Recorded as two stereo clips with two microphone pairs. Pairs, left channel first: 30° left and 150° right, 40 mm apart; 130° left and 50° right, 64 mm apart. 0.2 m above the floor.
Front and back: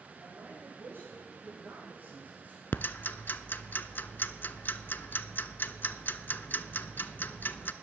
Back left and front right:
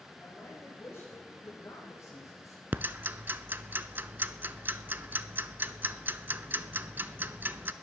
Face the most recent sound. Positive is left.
turn(degrees=5)